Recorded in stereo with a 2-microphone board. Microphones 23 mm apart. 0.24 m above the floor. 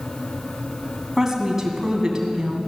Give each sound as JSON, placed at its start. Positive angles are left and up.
{"t": 1.2, "sound": "a woman speaking", "side_deg": -15, "distance_m": 2.5}